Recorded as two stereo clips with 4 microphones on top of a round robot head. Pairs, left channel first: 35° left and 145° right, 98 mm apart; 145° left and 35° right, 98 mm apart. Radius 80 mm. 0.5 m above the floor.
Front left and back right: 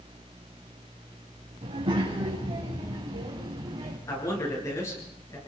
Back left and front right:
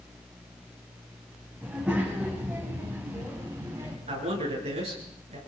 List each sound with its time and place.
1.6 s a child speaking: 115° right, 3.5 m; by 4.0 s 95° right, 4 m
4.1 s a man speaking: 25° right, 8 m